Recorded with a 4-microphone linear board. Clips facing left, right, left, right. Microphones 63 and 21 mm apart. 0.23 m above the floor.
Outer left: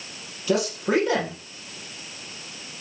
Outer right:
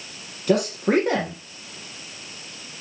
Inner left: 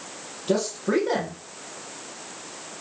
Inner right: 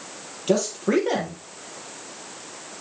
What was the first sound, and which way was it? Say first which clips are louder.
A man speaking: outer right 2 dB, inner right 2 dB; 50° right (ahead or behind).